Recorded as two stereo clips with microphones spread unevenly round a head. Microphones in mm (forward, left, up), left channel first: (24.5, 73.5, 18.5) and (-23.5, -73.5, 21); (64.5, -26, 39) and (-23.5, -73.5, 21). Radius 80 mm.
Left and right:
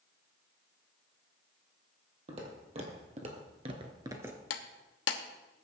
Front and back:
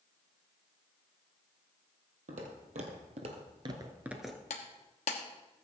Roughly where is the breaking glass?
Ahead left.